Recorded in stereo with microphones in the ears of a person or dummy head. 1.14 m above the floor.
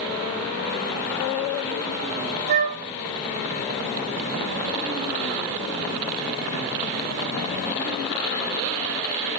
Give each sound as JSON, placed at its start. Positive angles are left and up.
{"t": 2.5, "sound": "a flute", "side_deg": -40, "distance_m": 1.3}